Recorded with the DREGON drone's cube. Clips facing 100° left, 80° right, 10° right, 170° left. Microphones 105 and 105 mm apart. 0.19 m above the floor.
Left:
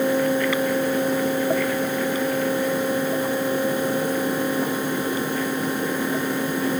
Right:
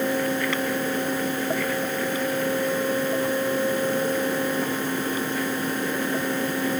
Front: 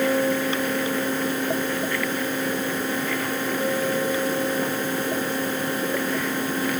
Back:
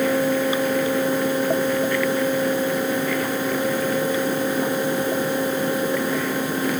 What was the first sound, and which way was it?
Only background noise.